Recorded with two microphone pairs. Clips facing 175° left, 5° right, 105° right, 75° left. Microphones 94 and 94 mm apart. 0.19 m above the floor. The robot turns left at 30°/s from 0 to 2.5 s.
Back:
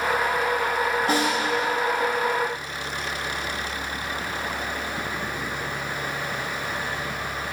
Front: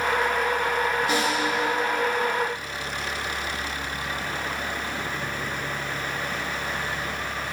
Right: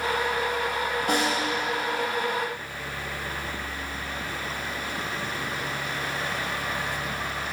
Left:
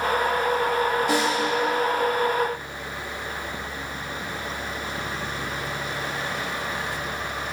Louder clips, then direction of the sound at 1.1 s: Back 2 dB, left 2 dB; 140° right.